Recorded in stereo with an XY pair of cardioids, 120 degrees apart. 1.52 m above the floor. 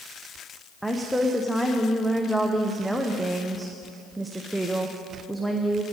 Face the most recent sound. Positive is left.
turn(degrees=-5)